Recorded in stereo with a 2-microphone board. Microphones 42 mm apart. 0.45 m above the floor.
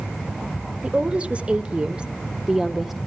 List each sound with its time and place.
0.8 s a woman speaking: 30° right (ahead or behind), 1.7 m; by 3.0 s 5° right (ahead or behind), 1.3 m